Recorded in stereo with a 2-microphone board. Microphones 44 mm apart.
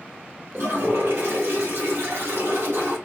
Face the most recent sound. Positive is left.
turn(degrees=-70)  # may be behind; listen again after turning